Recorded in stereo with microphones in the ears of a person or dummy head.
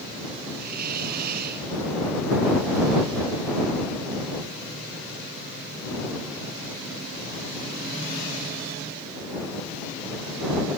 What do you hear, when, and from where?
0.6 s a hiss: 55° right (ahead or behind)